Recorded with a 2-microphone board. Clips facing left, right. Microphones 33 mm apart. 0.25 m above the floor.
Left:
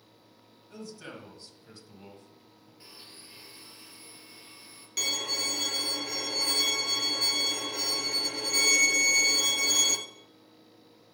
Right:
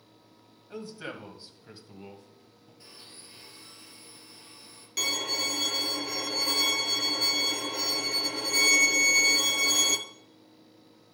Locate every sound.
0.7 s a man speaking: 35° right (ahead or behind), 1.4 m; by 2.7 s 5° right (ahead or behind), 1.9 m
2.8 s a blender: 15° left (ahead or behind), 2.5 m
5.0 s a violin: centre (ahead or behind), 0.8 m